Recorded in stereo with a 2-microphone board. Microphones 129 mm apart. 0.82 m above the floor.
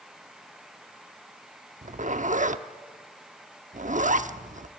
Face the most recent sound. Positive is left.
turn(degrees=-75)  # may be behind; listen again after turning